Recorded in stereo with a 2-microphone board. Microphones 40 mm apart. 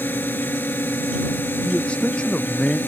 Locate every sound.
0.0 s a drone: 55° left (ahead or behind)
1.6 s a man speaking: 25° left (ahead or behind)